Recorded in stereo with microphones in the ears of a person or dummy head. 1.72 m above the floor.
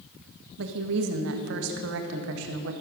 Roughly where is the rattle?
No rattle in this recording.